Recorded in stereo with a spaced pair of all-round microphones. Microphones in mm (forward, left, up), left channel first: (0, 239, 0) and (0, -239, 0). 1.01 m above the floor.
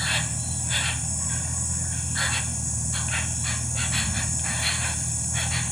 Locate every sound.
0.0 s an insect: centre (ahead or behind)